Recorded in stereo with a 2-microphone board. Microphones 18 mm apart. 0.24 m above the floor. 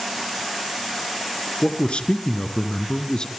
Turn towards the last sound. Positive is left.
turn(degrees=50)  # may be behind; listen again after turning